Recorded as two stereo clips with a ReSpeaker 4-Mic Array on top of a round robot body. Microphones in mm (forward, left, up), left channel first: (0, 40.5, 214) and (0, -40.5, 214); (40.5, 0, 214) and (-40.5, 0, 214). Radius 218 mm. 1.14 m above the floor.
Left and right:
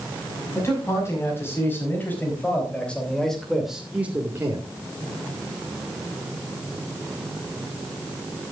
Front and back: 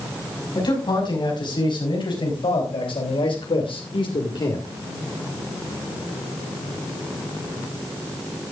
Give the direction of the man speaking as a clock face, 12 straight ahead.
11 o'clock.